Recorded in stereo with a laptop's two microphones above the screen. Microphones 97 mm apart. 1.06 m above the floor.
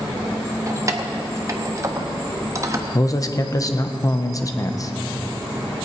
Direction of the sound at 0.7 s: 30° right (ahead or behind).